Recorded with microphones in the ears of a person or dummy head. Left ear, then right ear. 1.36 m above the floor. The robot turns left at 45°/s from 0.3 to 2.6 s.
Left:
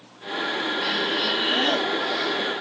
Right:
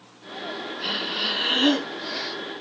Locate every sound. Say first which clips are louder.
0.8 s breathing: even; straight ahead, 2.5 m; by 2.3 s 70° right, 2.5 m